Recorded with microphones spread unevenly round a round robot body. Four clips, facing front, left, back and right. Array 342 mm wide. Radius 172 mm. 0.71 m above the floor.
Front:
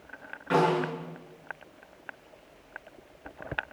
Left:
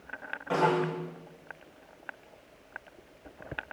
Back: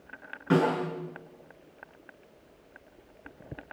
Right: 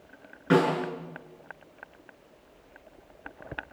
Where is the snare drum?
130° right, 8 m.